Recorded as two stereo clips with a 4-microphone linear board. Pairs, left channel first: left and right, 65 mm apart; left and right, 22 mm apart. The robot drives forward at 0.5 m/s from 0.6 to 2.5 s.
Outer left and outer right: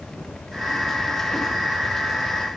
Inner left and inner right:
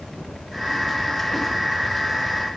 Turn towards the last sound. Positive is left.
No sound to turn to.